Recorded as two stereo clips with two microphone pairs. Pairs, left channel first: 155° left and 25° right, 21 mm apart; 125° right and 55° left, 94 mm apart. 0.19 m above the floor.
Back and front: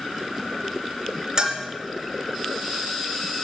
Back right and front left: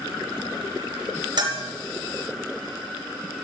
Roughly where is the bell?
Ahead.